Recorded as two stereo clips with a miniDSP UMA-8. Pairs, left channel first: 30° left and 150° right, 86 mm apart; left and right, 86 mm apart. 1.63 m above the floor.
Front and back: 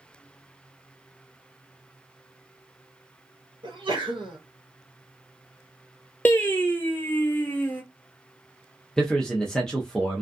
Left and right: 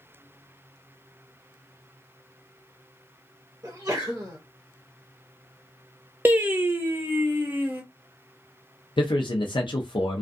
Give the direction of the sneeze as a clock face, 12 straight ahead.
5 o'clock.